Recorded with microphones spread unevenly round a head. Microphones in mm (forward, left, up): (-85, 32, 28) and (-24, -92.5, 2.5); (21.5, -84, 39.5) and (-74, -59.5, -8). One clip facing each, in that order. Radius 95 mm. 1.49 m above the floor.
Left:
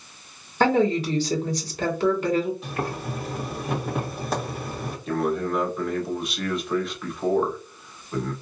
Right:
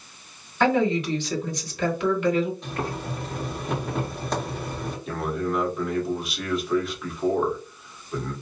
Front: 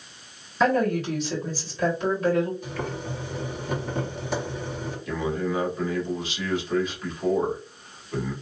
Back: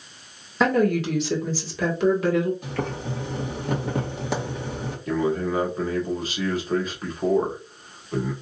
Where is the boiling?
165° right, 2 m.